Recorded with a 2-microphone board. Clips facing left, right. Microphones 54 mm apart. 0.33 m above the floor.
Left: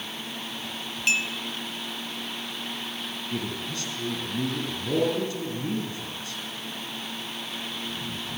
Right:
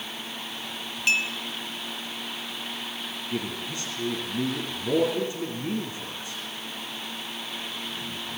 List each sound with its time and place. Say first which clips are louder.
1.1 s a clink: right 1 dB; 5° right (ahead or behind), 2.5 m
3.3 s a man speaking: right 1 dB; 20° right (ahead or behind), 3 m